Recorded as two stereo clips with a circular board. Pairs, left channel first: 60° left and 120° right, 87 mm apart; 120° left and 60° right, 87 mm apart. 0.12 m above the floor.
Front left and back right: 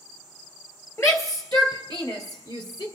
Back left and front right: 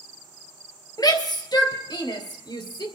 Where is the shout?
105° left, 2 m; by 2.9 s 90° left, 3.5 m.